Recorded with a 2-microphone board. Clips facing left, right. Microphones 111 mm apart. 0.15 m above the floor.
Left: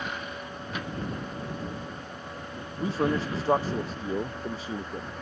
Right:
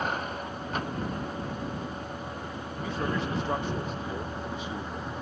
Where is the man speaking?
35° left (ahead or behind).